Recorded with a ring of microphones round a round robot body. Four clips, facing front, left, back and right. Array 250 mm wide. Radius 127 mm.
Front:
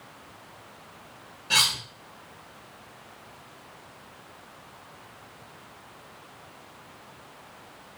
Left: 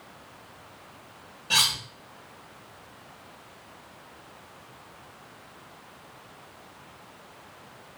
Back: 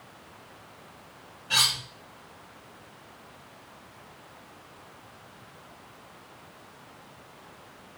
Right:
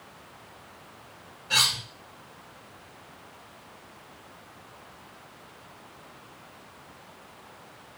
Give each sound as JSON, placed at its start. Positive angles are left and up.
{"t": 1.5, "sound": "cutlery clinking", "azimuth_deg": 55, "distance_m": 0.9}